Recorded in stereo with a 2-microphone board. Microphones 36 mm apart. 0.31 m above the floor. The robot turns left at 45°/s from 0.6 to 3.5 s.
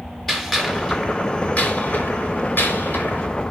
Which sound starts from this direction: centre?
A gunshot, at 0.3 s.